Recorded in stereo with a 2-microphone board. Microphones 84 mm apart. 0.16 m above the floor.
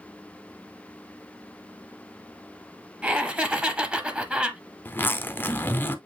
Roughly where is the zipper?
Left.